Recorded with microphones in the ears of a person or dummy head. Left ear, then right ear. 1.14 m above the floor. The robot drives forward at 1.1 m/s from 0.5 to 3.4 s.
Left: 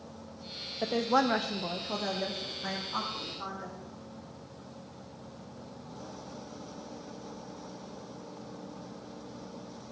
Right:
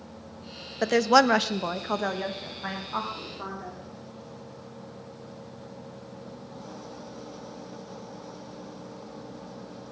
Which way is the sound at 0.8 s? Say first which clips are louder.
Right 8 dB; 50° right (ahead or behind).